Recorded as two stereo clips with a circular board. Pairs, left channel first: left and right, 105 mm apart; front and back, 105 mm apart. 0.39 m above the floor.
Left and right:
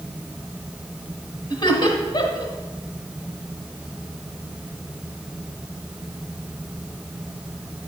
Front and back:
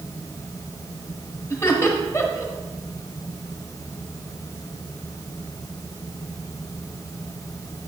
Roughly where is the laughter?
Ahead left.